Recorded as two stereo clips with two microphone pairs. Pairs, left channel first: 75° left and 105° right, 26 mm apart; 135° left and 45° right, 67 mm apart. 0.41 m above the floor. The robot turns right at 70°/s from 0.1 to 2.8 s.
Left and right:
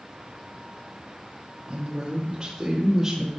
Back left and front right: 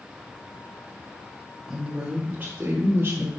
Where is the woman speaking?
125° right, 1.5 m; by 3.3 s 45° right, 1.5 m.